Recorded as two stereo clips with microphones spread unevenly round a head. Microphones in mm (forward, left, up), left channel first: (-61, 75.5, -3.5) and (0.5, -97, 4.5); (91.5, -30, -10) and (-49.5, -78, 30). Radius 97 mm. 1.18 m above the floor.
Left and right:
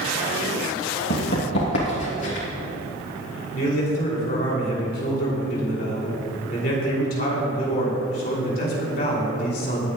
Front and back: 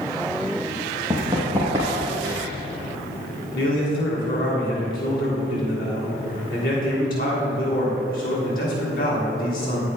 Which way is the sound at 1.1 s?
130° left.